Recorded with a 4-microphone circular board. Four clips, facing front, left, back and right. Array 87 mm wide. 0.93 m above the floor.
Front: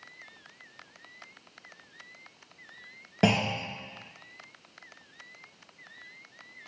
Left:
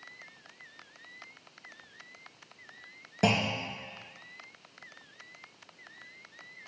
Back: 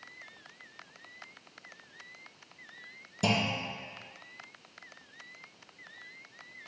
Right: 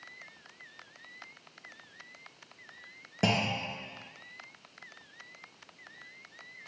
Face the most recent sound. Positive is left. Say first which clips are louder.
# left 2 dB, front 4 dB
turn(degrees=0)